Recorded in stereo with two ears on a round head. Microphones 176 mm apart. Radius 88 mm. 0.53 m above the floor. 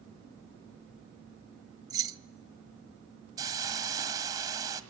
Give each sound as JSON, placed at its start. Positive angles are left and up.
{"t": 1.9, "sound": "keys jangling", "side_deg": -20, "distance_m": 0.8}
{"t": 3.4, "sound": "a hiss", "side_deg": -20, "distance_m": 1.6}